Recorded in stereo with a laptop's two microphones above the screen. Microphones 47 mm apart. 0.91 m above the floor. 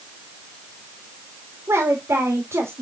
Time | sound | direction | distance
1.7 | a woman speaking | 70° right (ahead or behind) | 2 m